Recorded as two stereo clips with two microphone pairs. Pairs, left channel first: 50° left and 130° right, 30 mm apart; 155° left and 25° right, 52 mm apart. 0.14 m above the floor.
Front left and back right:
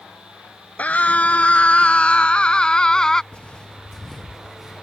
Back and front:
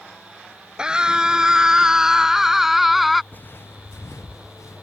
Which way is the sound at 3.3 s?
100° left.